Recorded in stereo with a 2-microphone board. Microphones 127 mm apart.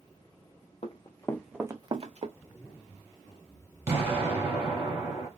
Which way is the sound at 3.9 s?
20° right (ahead or behind).